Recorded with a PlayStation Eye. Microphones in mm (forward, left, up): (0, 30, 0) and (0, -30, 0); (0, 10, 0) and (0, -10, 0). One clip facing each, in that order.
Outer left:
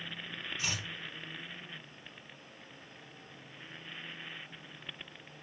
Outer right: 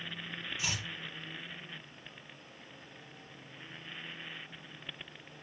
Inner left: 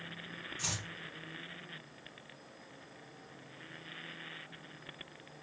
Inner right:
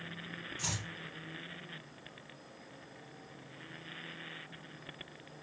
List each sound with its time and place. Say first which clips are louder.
0.6 s chopping: even, even; 10° right (ahead or behind), 4 m